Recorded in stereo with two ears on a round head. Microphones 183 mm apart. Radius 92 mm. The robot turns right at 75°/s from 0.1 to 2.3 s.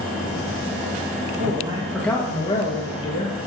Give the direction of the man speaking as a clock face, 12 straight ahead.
1 o'clock.